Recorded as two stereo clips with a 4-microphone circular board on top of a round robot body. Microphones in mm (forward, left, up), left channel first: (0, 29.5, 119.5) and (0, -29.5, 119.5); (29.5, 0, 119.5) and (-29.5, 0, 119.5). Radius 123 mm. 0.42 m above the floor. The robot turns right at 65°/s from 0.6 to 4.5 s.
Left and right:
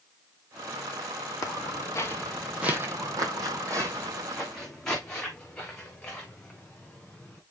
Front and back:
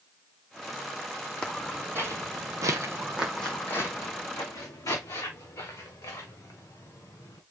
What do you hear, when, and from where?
1.4 s footsteps: 75° left, 1.4 m; by 7.4 s 20° left, 4.5 m